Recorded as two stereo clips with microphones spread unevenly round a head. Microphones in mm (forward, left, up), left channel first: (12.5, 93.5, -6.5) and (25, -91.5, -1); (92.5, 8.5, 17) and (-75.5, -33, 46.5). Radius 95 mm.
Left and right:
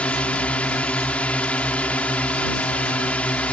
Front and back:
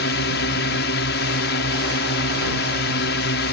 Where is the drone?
10° left.